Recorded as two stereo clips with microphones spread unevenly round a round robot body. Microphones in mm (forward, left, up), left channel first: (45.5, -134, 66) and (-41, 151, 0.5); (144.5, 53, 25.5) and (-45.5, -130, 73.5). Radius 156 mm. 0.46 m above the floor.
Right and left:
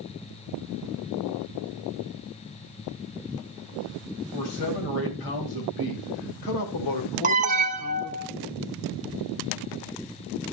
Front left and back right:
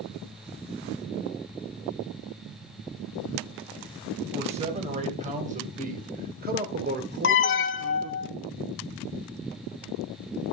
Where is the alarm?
55° left, 0.9 m.